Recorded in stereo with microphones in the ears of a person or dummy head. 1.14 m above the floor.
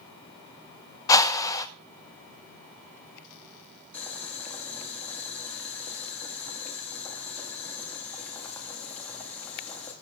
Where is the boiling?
20° left (ahead or behind), 2.0 m.